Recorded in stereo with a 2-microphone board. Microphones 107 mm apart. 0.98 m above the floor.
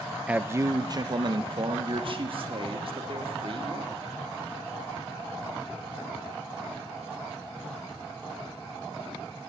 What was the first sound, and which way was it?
A man speaking, 10° right (ahead or behind).